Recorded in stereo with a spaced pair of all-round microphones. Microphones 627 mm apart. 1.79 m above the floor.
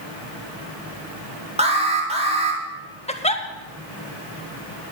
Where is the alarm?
10° right (ahead or behind), 2.5 m.